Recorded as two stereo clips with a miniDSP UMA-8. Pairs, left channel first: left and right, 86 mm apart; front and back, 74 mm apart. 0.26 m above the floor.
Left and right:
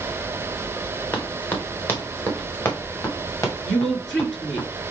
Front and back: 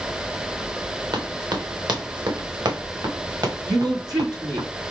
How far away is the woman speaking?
About 4 m.